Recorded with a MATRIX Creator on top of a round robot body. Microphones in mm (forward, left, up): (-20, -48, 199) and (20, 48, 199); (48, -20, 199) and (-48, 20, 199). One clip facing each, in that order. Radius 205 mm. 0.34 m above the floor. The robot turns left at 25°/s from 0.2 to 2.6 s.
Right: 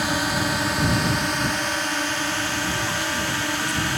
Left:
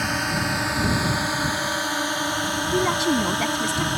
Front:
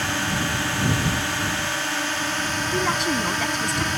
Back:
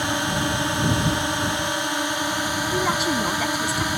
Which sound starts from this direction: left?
A woman speaking, at 2.7 s.